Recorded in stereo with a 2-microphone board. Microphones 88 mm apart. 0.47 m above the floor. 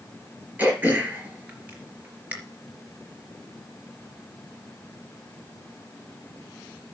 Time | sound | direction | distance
0.6 | throat clearing | 20° right (ahead or behind) | 3.5 m